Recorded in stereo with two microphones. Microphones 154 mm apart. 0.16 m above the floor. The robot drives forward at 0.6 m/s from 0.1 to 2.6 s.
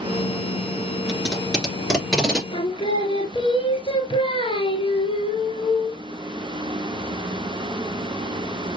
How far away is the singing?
About 1.0 m.